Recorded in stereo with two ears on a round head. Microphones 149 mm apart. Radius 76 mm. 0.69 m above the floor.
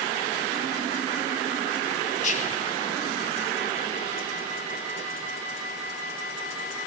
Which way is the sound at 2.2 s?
50° left (ahead or behind).